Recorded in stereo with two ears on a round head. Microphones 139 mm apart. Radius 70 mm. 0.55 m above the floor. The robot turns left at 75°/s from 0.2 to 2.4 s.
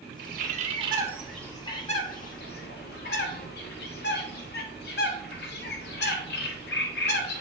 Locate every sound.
0.2 s a bird: 75° right (ahead or behind), 0.9 m; by 7.4 s 75° left (ahead or behind), 0.9 m